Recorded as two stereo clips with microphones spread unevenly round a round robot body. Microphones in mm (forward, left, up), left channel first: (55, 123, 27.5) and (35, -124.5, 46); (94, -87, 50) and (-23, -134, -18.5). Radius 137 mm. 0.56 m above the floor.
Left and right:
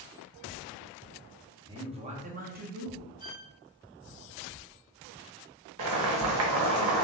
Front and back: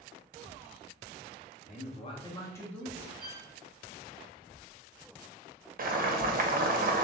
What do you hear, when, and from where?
1.6 s a man speaking: 25° right, 1.1 m; by 3.1 s 120° right, 1.1 m
3.2 s a violin: 160° right, 1.1 m
5.8 s boiling: 140° right, 0.7 m